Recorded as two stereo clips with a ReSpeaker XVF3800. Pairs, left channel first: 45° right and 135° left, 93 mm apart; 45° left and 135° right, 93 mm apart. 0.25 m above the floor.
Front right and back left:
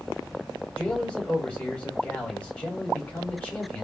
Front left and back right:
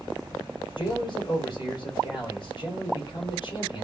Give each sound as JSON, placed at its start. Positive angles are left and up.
{"t": 0.8, "sound": "a man speaking", "azimuth_deg": 30, "distance_m": 3.0}